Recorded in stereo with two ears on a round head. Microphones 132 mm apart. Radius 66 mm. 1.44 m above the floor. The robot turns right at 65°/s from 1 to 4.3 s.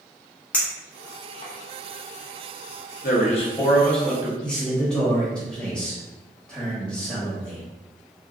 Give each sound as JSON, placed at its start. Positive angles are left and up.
{"t": 0.5, "sound": "a clink", "side_deg": 10, "distance_m": 0.7}
{"t": 3.0, "sound": "a man speaking", "azimuth_deg": 115, "distance_m": 0.8}
{"t": 4.4, "sound": "a man speaking", "side_deg": 5, "distance_m": 1.1}